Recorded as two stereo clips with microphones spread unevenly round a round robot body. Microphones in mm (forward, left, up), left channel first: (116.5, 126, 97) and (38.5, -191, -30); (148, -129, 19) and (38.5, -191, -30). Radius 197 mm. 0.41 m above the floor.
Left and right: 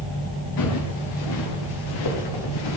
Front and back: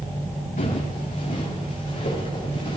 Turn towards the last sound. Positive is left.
turn(degrees=90)